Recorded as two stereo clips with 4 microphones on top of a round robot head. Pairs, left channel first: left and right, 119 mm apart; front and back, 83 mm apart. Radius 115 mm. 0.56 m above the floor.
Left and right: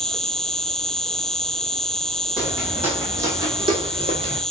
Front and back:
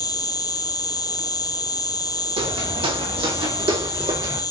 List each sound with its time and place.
0.0 s an insect: 5° left, 0.9 m
2.4 s footsteps: 175° right, 2.5 m; by 4.4 s 135° right, 2 m